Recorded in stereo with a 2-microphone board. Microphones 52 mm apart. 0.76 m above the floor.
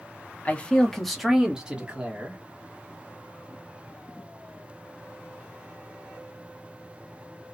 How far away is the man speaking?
About 0.8 m.